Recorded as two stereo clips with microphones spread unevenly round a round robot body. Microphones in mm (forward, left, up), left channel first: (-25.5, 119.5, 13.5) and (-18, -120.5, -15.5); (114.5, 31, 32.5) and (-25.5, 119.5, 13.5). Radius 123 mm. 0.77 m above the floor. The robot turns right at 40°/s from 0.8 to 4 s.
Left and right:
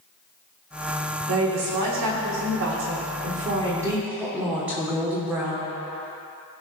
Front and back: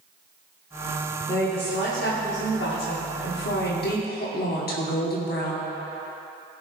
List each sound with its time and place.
1.3 s a woman speaking: 115° right, 1.6 m; by 5.7 s 5° right, 1.6 m